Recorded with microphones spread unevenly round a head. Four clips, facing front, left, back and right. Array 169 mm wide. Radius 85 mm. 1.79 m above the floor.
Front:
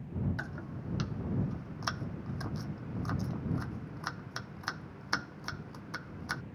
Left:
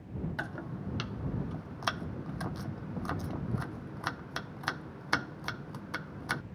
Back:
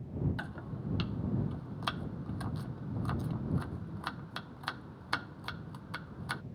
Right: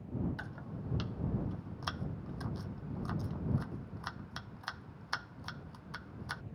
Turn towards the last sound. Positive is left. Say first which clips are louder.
# left 6 dB, even
turn(degrees=85)